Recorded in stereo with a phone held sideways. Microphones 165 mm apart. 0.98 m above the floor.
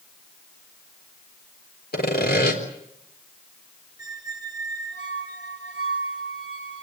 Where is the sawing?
75° left (ahead or behind), 4 m.